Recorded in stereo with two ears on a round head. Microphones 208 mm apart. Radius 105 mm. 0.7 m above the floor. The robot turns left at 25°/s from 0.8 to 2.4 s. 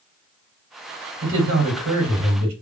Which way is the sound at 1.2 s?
55° right (ahead or behind).